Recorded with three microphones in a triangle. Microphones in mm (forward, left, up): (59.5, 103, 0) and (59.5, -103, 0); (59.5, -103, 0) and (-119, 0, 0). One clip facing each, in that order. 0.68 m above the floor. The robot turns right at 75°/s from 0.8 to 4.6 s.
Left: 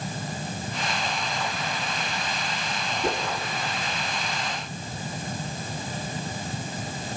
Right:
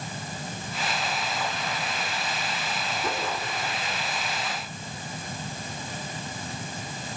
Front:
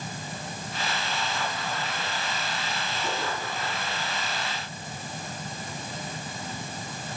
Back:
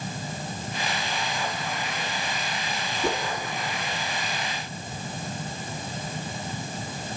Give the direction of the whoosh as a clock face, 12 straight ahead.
7 o'clock.